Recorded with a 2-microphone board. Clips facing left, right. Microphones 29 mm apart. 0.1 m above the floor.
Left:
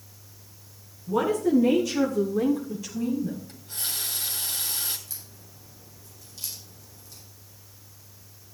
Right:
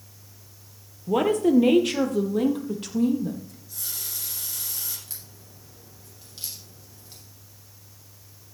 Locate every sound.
1.1 s a woman speaking: 55° right (ahead or behind), 1.9 m; by 3.4 s 65° right (ahead or behind), 3.5 m
3.5 s a running tap: 55° left (ahead or behind), 2.5 m
5.1 s a crack: 35° right (ahead or behind), 6.5 m